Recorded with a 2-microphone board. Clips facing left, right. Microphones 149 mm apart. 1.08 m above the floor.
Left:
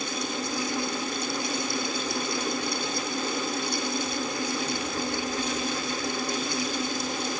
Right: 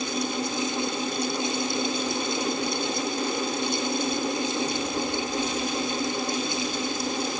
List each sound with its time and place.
Only background noise.